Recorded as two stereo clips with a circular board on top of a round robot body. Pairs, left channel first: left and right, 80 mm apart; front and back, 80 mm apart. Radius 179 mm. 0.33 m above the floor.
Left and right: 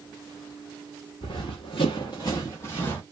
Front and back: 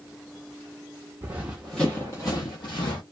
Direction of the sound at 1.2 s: 115° left.